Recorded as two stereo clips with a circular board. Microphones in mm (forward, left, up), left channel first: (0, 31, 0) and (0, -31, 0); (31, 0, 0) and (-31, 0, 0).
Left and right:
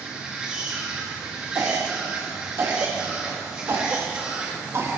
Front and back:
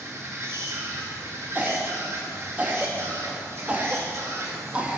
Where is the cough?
115° right, 1.2 m.